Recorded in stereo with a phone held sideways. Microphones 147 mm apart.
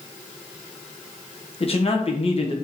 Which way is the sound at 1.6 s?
40° left (ahead or behind).